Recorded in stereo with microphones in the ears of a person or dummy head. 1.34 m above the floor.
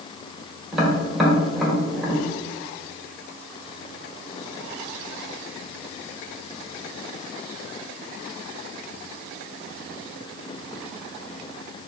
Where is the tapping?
5° right (ahead or behind), 1.9 m.